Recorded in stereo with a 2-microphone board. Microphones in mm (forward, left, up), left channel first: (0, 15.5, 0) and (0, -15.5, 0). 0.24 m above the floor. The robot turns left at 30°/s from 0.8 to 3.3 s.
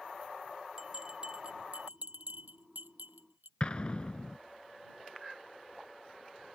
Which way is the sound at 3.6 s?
35° left (ahead or behind).